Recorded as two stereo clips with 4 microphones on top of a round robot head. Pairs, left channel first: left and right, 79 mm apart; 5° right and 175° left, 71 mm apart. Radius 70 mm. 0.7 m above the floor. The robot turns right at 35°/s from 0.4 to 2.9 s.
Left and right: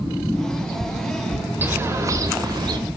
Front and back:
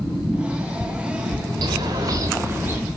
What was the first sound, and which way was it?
A bird, 155° right.